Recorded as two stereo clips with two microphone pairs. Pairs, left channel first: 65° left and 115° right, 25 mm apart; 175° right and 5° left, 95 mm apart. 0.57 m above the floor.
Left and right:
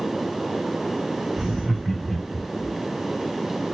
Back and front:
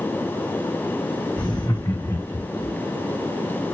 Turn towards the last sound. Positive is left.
turn(degrees=130)